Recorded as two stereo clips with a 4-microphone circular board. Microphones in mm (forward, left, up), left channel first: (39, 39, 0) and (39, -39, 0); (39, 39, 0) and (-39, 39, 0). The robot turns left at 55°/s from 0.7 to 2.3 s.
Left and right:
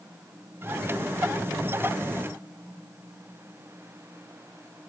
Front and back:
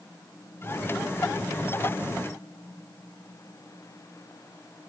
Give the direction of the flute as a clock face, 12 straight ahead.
No flute in this recording.